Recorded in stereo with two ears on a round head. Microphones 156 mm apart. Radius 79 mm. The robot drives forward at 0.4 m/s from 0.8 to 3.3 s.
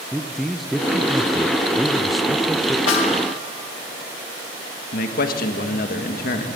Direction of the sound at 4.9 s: 60° left (ahead or behind).